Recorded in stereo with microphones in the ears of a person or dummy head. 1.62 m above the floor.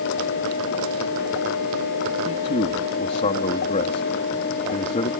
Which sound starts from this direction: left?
A man speaking, at 2.2 s.